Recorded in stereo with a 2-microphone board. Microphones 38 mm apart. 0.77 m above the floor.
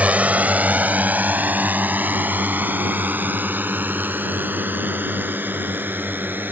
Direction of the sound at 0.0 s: 40° right (ahead or behind).